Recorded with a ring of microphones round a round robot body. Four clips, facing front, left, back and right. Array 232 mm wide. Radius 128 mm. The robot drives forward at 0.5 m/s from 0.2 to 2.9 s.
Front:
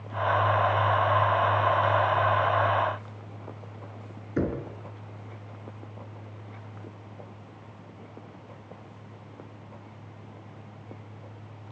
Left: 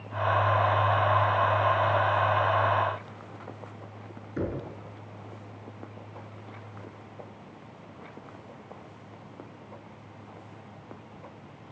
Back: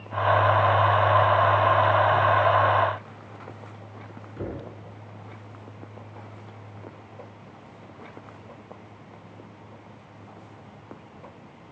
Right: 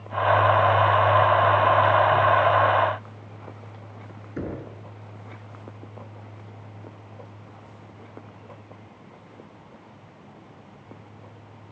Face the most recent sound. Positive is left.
turn(degrees=0)